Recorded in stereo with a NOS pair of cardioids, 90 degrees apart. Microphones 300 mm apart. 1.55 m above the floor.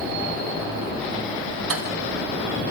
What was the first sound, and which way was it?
Cutlery clinking, 45° right.